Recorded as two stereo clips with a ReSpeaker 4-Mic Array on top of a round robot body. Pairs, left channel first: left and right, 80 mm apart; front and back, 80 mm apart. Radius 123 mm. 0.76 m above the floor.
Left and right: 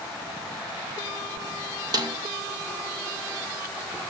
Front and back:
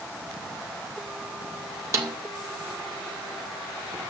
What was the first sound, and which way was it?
A snare drum, 125° right.